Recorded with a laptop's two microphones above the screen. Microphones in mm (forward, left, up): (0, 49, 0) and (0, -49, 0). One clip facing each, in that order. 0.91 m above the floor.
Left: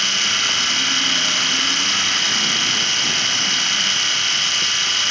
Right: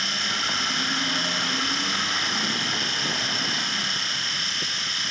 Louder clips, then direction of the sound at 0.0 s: Left 4 dB; 75° left (ahead or behind).